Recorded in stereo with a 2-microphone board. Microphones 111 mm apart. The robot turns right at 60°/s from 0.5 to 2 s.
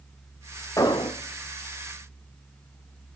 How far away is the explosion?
About 1.3 m.